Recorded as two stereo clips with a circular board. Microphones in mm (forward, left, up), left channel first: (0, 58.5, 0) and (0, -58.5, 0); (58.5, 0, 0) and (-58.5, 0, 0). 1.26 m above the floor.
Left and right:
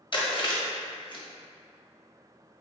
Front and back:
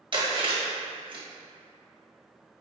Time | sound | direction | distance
0.1 | chewing | 135° left | 1.2 m